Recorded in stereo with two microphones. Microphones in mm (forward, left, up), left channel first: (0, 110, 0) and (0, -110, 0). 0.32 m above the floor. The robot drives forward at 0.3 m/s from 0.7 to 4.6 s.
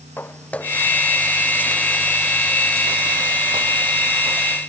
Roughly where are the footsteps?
Centre.